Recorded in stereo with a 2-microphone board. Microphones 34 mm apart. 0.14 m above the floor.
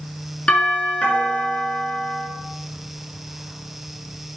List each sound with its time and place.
0.5 s a doorbell: 35° left (ahead or behind), 2.5 m